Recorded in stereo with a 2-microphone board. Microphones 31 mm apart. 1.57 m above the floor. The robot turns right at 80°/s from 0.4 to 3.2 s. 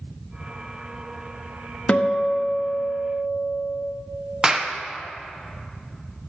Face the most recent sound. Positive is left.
turn(degrees=-20)  # may be behind; listen again after turning